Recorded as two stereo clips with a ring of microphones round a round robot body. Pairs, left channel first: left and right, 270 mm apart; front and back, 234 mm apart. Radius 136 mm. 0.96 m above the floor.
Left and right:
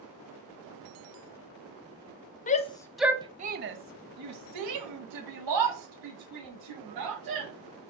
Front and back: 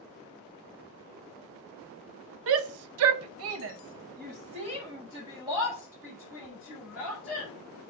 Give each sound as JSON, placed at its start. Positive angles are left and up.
{"t": 2.5, "sound": "a shout", "azimuth_deg": 150, "distance_m": 0.7}